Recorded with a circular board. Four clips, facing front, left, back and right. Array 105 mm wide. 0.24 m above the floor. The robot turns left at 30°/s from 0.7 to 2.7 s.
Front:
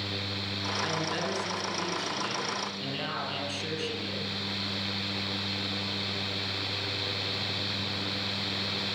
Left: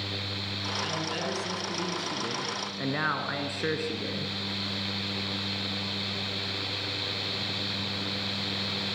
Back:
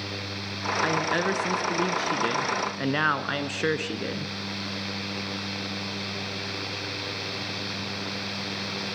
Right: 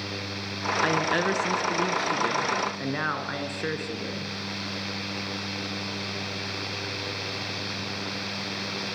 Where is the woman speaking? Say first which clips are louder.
Right 9 dB, back 7 dB; 125° right, 2.5 m; by 4.3 s straight behind, 2.5 m.